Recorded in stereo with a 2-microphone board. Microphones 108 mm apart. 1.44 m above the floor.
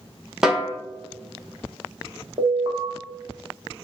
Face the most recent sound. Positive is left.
turn(degrees=-35)  # may be behind; listen again after turning